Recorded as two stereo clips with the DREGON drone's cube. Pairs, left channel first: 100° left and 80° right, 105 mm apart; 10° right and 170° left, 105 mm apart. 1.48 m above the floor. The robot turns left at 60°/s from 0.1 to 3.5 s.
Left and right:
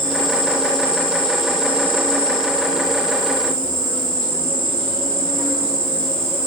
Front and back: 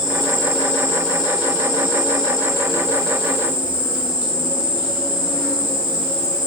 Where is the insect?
90° left, 0.9 m; by 6.5 s 115° right, 0.9 m.